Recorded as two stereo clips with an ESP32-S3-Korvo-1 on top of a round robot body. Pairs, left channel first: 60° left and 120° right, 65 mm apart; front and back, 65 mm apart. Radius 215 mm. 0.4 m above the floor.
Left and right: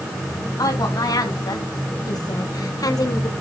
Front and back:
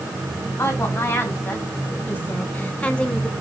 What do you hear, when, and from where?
0.6 s a woman speaking: 50° left, 5.5 m; by 3.3 s 80° left, 2.5 m